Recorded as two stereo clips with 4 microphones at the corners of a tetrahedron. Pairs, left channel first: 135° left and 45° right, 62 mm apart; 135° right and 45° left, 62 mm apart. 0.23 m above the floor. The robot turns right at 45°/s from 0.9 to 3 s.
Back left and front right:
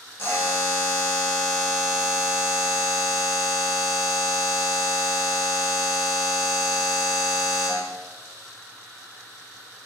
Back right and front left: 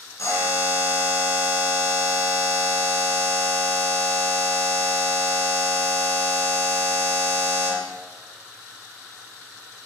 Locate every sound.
0.2 s a buzzer: 165° right, 1.8 m; by 7.9 s 75° right, 1.8 m